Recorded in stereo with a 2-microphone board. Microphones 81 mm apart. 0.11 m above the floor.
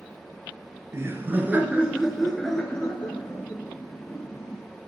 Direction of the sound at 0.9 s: 35° right (ahead or behind).